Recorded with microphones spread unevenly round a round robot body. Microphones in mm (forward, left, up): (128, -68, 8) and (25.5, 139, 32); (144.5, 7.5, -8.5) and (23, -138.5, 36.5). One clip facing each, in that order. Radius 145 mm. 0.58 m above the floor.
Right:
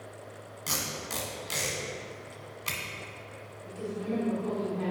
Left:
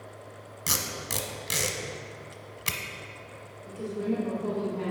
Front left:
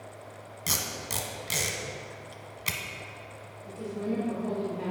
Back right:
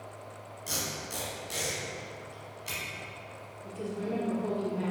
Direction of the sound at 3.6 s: Straight behind.